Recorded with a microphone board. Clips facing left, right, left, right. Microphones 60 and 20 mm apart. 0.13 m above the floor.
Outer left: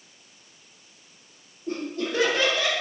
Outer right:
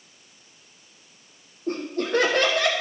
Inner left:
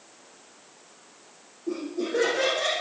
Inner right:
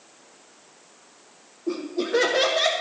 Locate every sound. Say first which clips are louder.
1.7 s laughter: outer right 3 dB, inner right 3 dB; 50° right (ahead or behind), 4.5 m; by 2.7 s 60° right (ahead or behind), 5 m